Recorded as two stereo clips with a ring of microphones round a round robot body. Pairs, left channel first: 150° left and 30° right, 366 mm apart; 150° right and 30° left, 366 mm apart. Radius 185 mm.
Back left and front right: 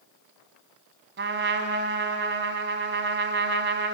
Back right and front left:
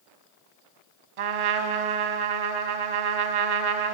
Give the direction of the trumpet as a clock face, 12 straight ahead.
11 o'clock.